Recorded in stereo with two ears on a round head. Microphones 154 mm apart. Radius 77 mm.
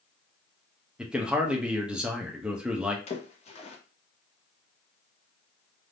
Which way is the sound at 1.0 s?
5° right (ahead or behind).